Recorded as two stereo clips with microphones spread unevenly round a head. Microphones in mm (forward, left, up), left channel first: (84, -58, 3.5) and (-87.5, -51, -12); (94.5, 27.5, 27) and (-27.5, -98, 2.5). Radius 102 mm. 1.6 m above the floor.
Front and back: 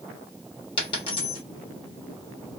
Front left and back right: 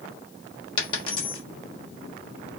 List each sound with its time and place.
0.8 s a dropped coin: 25° left, 1.2 m